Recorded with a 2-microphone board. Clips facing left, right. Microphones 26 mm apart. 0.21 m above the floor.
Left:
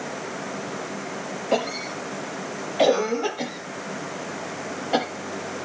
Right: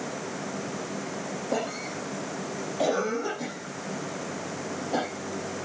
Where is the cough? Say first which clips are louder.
Left 6 dB; 65° left (ahead or behind), 5 m.